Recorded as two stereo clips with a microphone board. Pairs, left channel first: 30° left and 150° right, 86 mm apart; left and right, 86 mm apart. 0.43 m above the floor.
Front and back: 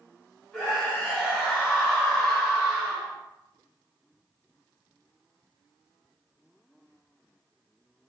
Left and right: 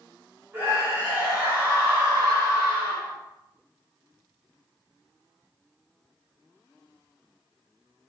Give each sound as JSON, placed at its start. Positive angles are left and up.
{"t": 0.5, "sound": "a scream", "azimuth_deg": -50, "distance_m": 1.6}